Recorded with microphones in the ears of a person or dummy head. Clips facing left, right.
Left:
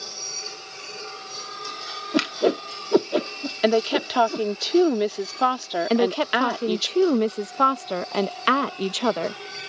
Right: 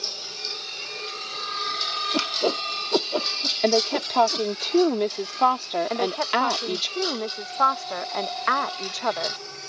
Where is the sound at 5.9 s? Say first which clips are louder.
Left 9 dB; 45° left (ahead or behind).